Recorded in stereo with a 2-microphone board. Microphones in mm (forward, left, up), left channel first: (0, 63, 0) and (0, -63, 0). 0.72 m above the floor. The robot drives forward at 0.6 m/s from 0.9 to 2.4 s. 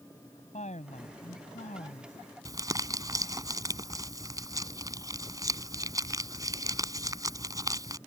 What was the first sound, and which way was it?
A woman speaking, 70° left (ahead or behind).